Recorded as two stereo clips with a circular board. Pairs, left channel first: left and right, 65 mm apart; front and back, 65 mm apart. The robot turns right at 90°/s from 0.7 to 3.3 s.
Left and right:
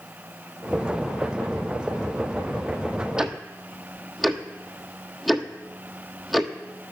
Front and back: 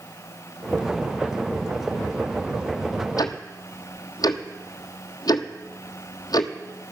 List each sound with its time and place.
3.2 s ticking: 10° right, 1.1 m; by 6.5 s straight ahead, 1.1 m